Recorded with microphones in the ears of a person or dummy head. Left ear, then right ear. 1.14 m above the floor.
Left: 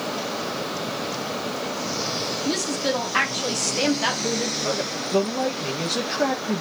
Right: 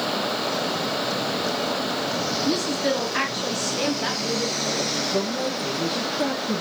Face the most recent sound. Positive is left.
turn(degrees=75)  # may be behind; listen again after turning